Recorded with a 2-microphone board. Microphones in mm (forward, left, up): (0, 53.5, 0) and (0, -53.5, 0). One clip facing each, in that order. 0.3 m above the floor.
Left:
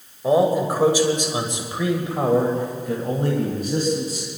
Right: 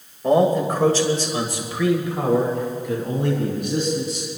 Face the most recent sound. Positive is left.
turn(degrees=40)  # may be behind; listen again after turning